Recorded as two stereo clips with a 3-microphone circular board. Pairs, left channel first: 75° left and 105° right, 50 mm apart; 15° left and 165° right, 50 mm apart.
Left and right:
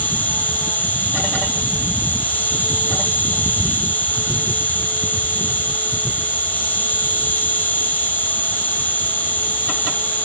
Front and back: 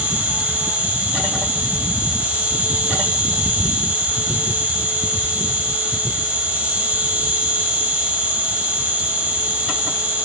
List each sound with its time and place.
0.0 s an insect: 130° left, 4 m